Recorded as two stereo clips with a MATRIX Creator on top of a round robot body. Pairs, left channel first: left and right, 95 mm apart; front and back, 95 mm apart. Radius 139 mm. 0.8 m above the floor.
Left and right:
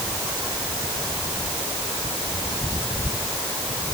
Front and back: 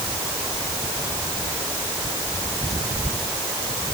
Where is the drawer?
No drawer in this recording.